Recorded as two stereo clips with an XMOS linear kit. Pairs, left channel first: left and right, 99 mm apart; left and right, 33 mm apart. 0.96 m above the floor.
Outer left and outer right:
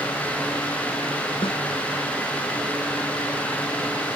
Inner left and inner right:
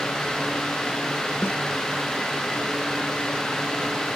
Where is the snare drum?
70° left (ahead or behind).